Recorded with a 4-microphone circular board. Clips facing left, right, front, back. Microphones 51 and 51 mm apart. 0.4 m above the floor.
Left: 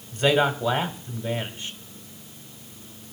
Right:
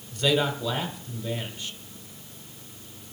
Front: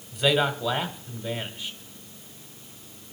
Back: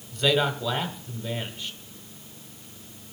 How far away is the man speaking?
About 1.5 m.